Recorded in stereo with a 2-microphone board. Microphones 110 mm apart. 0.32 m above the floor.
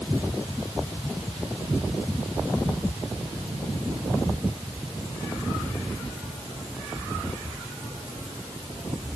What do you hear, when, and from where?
Only background noise.